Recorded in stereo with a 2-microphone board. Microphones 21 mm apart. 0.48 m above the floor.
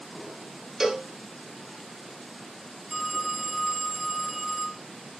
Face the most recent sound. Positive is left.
turn(degrees=-10)  # may be behind; listen again after turning